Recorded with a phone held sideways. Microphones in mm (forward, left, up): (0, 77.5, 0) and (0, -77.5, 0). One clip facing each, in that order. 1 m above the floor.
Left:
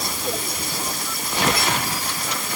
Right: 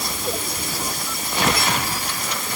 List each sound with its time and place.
Only background noise.